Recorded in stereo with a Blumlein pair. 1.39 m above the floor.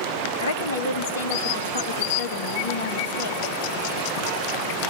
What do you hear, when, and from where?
0.4 s a woman speaking: 60° left, 2 m